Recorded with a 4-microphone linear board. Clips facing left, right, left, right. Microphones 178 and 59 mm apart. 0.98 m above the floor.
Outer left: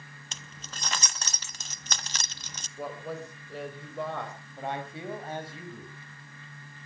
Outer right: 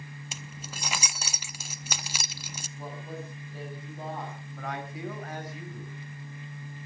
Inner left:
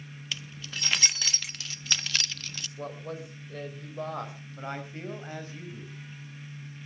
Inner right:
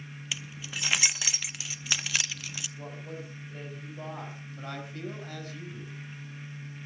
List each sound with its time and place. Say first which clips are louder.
0.3 s keys jangling: outer right 1 dB, even; 10° right (ahead or behind), 0.6 m
2.8 s a woman speaking: outer left 4 dB, inner left 3 dB; 80° left, 6 m
4.6 s a man speaking: outer left 2 dB, inner left 2 dB; 30° left (ahead or behind), 5 m